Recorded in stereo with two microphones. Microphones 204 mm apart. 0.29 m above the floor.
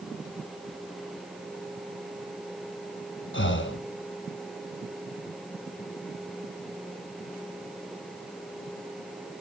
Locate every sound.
3.3 s breathing: 70° left (ahead or behind), 1.3 m